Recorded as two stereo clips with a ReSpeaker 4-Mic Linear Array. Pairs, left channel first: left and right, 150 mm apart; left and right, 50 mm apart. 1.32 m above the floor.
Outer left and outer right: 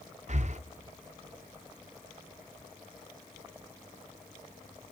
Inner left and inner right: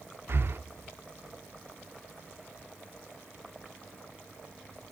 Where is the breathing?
50° right (ahead or behind), 0.8 m.